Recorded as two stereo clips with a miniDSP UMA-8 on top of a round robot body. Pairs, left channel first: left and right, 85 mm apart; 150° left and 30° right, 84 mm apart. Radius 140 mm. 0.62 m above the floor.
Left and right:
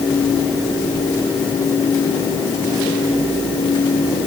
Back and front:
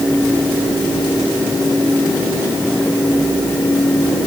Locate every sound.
Only background noise.